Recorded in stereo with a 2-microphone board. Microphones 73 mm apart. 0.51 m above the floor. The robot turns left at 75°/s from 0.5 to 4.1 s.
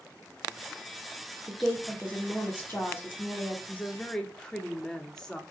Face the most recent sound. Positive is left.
turn(degrees=15)